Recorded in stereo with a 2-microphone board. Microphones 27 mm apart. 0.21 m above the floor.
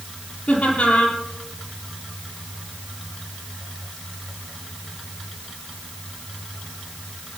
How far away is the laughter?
About 5 m.